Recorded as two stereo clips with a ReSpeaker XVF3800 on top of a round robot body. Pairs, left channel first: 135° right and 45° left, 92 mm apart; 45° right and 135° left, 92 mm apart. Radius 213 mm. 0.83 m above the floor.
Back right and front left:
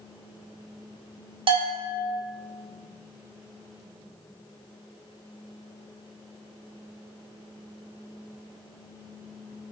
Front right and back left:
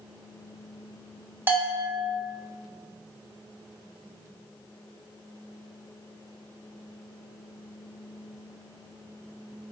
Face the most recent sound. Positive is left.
turn(degrees=65)